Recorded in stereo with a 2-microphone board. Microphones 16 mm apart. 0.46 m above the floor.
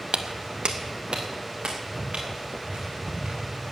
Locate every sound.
0.1 s footsteps: 65° right (ahead or behind), 0.9 m; by 3.7 s 85° right, 5.5 m